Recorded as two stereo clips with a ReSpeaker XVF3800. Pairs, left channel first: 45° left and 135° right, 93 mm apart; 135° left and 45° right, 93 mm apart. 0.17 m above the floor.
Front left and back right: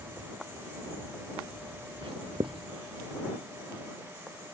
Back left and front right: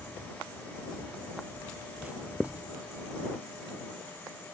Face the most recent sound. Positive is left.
turn(degrees=-120)